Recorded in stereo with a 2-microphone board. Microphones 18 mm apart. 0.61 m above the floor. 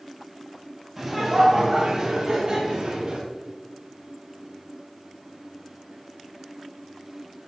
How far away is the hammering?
No hammering in this recording.